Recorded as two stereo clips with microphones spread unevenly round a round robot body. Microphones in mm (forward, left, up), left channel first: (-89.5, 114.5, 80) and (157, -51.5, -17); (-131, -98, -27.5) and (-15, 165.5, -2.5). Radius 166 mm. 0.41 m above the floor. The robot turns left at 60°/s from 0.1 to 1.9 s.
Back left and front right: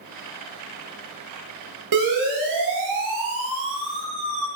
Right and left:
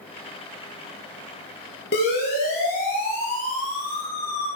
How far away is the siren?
About 8.5 m.